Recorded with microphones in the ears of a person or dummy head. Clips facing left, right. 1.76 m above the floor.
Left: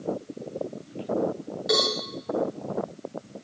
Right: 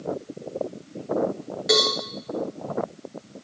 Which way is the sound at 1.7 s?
35° right (ahead or behind).